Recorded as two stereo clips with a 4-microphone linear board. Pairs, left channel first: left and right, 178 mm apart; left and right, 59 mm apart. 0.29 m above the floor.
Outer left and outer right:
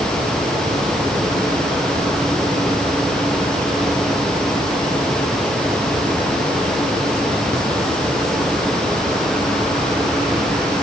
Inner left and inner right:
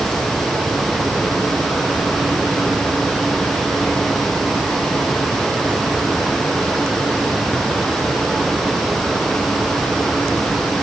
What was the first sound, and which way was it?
Only background noise.